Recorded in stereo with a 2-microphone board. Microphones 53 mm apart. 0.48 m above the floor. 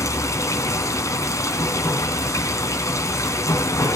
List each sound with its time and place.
0.0 s running water: 80° left, 3 m